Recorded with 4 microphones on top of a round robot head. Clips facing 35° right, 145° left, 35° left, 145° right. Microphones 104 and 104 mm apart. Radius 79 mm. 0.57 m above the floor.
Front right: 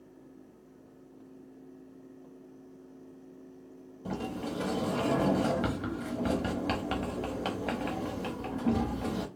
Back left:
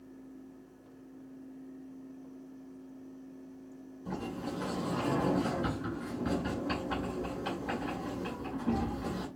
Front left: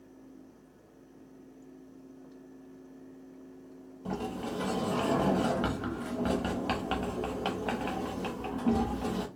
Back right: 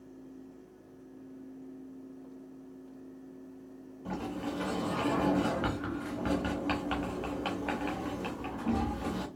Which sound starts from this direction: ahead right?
A sliding door, at 4.0 s.